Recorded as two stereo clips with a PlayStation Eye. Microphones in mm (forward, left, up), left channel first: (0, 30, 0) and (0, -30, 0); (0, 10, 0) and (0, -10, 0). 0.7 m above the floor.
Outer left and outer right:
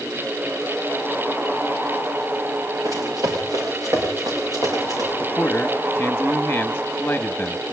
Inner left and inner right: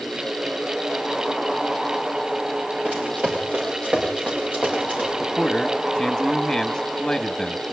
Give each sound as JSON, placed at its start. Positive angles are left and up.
{"t": 2.9, "sound": "running footsteps", "side_deg": -75, "distance_m": 6.5}
{"t": 5.2, "sound": "a man speaking", "side_deg": 25, "distance_m": 1.3}